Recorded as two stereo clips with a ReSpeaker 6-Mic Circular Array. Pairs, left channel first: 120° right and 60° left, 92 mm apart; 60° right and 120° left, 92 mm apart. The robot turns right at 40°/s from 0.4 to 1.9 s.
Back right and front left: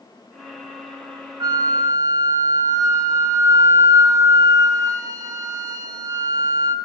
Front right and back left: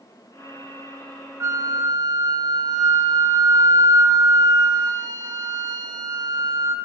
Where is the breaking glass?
I don't hear breaking glass.